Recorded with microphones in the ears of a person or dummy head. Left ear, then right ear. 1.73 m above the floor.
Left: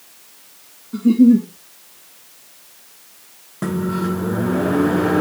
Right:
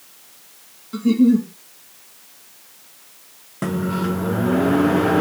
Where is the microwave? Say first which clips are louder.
Left 1 dB; 10° right (ahead or behind), 1.0 m.